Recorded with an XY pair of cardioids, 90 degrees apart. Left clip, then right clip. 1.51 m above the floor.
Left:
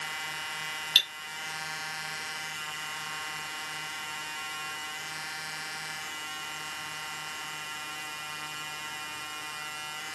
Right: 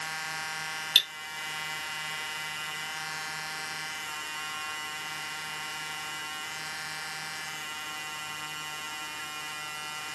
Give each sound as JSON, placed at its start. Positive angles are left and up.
{"t": 0.9, "sound": "cutlery clinking", "azimuth_deg": -15, "distance_m": 1.8}